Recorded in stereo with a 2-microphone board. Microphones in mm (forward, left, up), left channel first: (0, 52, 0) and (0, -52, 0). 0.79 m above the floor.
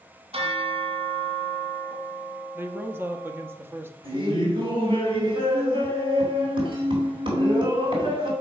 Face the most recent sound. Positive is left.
turn(degrees=-55)  # may be behind; listen again after turning